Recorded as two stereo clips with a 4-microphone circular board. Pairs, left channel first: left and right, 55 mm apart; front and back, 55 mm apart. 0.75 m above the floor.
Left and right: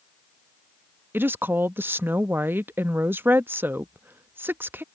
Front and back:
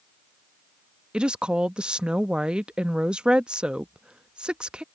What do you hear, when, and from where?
1.1 s a woman speaking: 115° right